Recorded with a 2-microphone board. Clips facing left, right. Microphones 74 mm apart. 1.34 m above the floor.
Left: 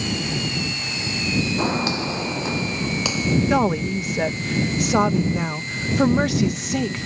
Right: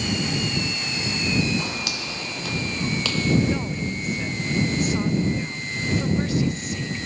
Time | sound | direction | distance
1.6 | footsteps | 35° left (ahead or behind) | ?
3.5 | a woman speaking | 75° left (ahead or behind) | ?